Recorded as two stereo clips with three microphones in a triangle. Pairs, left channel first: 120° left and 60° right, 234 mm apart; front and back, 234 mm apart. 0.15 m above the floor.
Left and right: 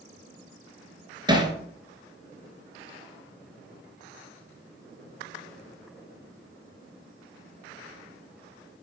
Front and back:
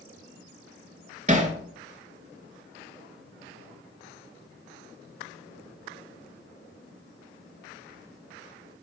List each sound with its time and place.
1.3 s hammering: 125° right, 1.2 m